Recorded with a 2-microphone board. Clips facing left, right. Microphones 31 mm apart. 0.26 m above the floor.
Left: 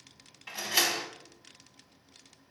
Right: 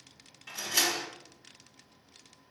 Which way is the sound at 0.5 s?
25° left (ahead or behind).